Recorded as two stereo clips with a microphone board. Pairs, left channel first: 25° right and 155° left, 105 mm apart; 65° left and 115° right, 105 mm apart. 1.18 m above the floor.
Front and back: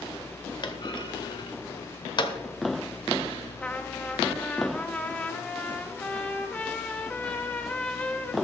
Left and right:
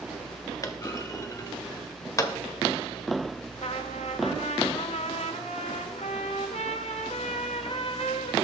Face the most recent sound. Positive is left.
turn(degrees=55)